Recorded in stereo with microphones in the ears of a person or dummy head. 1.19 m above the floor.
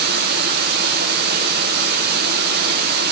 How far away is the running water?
About 4.5 m.